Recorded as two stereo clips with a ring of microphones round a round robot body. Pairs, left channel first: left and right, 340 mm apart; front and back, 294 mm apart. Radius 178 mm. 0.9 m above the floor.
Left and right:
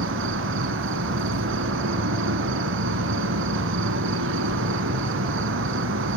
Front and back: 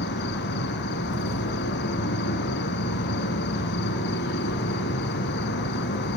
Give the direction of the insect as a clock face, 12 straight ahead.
2 o'clock.